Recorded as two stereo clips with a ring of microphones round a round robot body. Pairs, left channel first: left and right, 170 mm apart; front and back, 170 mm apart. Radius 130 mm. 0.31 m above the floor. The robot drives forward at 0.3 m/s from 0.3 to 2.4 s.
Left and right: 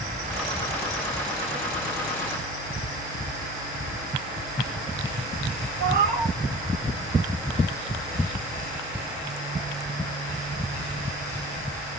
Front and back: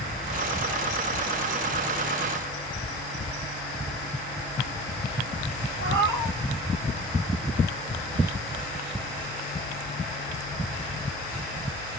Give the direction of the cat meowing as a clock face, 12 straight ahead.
5 o'clock.